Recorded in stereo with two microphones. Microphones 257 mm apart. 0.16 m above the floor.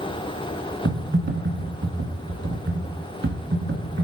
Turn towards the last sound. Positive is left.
turn(degrees=-45)  # may be behind; listen again after turning